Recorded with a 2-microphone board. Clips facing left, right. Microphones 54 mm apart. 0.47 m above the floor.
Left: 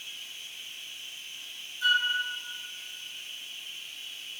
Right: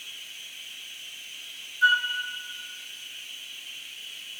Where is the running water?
75° right (ahead or behind), 5 m.